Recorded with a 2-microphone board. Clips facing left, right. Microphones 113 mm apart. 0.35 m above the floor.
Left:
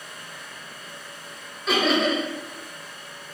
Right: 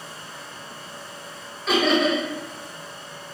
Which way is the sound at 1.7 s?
Centre (ahead or behind).